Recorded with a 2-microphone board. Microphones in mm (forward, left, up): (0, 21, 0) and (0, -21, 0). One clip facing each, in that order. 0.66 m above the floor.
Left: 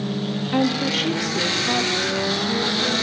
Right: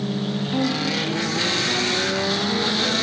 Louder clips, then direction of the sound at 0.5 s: Left 3 dB; 35° left (ahead or behind).